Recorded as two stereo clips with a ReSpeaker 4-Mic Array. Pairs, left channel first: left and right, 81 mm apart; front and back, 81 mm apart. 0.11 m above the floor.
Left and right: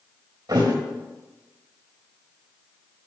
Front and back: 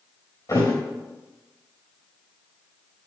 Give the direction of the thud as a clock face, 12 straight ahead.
2 o'clock.